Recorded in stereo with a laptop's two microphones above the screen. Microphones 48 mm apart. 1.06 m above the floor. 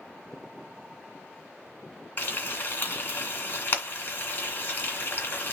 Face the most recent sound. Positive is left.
turn(degrees=45)  # may be behind; listen again after turning